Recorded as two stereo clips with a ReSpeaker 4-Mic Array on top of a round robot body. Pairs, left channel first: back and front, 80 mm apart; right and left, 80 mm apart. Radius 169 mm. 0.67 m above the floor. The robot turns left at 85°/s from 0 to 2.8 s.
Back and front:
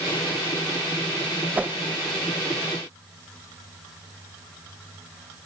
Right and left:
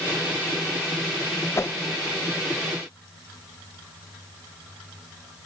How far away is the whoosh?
About 0.5 m.